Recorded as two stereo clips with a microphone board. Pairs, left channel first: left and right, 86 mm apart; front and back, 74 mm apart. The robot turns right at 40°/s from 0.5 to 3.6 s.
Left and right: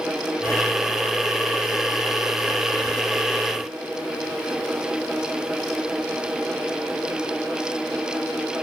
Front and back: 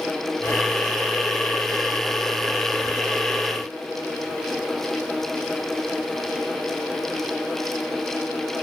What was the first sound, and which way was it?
Only background noise.